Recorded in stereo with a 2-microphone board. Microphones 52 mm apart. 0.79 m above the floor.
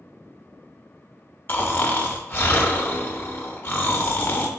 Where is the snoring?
40° left (ahead or behind), 0.7 m.